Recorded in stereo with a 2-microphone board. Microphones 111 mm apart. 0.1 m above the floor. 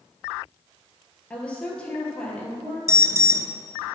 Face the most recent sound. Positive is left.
turn(degrees=-25)  # may be behind; listen again after turning